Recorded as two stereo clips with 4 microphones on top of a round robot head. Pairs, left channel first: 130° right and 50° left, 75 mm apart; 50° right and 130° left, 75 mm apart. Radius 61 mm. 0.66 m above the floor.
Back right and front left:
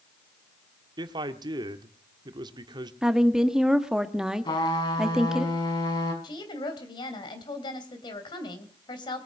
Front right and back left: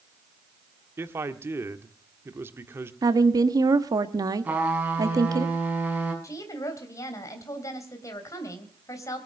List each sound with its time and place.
1.0 s a man speaking: 70° left, 1.5 m
3.0 s a woman speaking: 130° left, 1.4 m
4.5 s a trumpet: 160° right, 6 m
6.2 s a woman speaking: 100° right, 3 m